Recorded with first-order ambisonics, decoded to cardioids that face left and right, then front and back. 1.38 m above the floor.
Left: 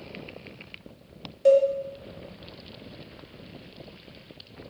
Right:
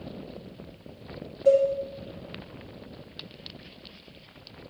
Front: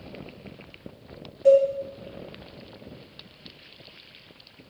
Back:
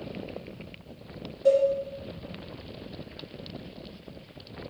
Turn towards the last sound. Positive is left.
turn(degrees=70)